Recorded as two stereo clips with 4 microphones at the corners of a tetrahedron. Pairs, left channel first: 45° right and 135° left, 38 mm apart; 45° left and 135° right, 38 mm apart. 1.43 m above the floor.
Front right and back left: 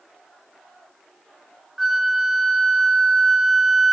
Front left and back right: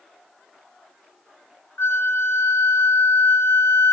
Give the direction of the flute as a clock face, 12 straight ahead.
10 o'clock.